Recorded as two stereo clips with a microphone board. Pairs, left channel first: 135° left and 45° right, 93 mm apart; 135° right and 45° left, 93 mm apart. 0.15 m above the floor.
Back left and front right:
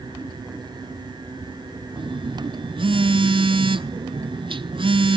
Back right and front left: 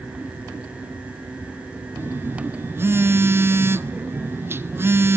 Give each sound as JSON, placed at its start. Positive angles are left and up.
{"t": 2.0, "sound": "a phone buzzing", "azimuth_deg": -20, "distance_m": 0.8}